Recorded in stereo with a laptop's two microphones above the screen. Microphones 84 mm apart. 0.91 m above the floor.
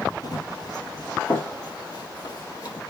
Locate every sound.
0.2 s running footsteps: 55° left (ahead or behind), 1.5 m; by 2.8 s 50° left (ahead or behind), 2 m